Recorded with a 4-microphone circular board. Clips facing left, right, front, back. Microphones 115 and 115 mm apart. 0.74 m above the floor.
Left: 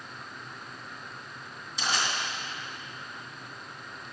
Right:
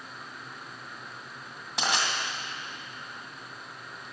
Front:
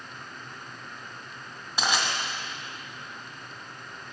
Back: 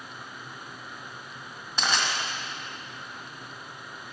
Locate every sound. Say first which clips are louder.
1.8 s crushing: right 2 dB, front 1 dB; 80° right, 1.7 m